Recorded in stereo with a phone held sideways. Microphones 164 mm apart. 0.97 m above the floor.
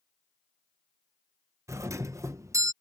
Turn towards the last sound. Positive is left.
turn(degrees=-20)  # may be behind; listen again after turning